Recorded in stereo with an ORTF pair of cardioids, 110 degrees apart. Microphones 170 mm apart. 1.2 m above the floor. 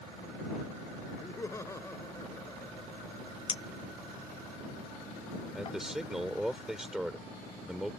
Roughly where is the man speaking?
Ahead.